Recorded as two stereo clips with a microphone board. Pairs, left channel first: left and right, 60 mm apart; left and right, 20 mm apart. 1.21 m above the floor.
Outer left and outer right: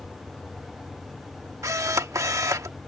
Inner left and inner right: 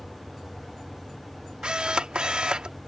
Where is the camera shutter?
65° right (ahead or behind).